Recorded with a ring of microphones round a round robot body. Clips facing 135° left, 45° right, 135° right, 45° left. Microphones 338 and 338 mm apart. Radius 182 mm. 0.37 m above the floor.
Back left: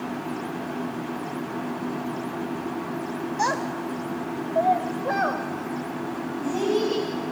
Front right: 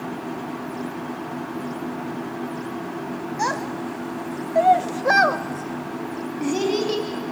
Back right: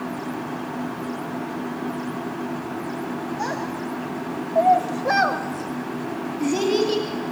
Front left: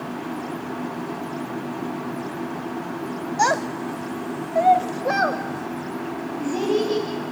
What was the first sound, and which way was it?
A child speaking, 45° left.